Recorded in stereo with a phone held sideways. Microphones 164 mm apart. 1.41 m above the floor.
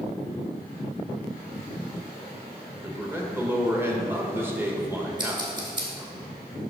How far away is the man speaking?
About 1.1 m.